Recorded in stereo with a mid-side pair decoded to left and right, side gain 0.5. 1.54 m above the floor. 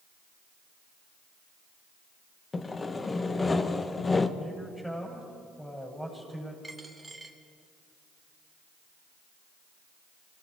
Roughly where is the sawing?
Ahead left.